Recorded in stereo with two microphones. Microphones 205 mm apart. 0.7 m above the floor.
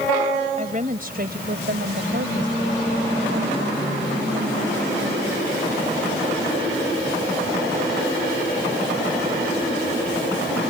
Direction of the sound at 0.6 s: 40° right (ahead or behind).